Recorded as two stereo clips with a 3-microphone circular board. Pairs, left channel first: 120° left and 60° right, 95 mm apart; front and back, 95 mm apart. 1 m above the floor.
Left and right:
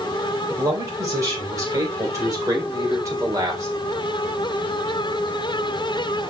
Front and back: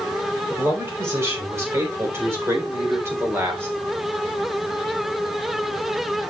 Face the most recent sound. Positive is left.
turn(degrees=-115)